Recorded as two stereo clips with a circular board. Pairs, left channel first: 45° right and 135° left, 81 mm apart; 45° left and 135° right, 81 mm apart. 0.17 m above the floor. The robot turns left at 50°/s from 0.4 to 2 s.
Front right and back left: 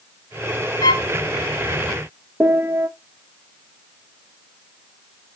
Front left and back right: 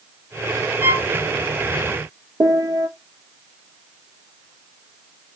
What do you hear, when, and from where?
0.8 s a violin: 80° right, 0.7 m; by 1.0 s 90° right, 0.7 m
2.4 s a piano: 165° right, 0.7 m